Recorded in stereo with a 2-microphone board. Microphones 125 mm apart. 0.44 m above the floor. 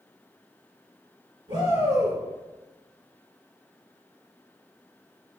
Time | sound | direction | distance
1.5 | a shout | 55° right (ahead or behind) | 3 m